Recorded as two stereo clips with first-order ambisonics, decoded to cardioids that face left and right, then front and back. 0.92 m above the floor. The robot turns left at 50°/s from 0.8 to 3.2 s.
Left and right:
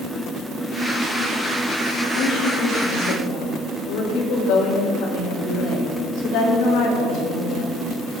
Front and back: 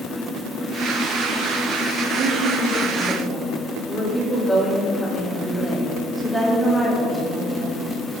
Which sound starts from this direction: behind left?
A woman speaking, at 2.1 s.